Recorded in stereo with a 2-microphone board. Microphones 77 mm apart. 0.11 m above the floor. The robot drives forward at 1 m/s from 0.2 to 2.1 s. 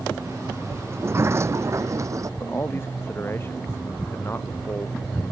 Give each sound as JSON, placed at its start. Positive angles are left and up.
{"t": 0.9, "sound": "a sliding door", "side_deg": -30}
{"t": 2.4, "sound": "a man speaking", "side_deg": 30}